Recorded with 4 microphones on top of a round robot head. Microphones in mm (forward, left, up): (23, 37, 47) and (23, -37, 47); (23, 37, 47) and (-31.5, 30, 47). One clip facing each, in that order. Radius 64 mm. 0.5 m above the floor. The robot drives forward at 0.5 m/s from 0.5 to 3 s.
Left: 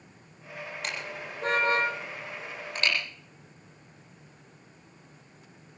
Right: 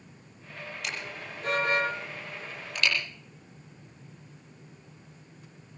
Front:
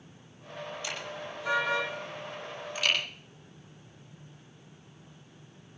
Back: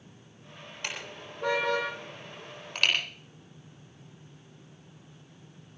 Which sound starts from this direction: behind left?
A car horn, at 0.8 s.